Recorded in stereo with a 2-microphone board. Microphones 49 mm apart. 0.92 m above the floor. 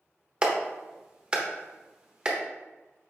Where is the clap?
20° right (ahead or behind), 0.9 m.